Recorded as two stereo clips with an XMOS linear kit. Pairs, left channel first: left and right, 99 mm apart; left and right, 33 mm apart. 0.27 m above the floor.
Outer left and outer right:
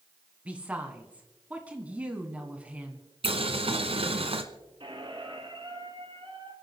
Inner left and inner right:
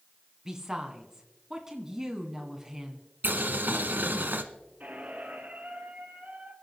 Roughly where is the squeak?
Right.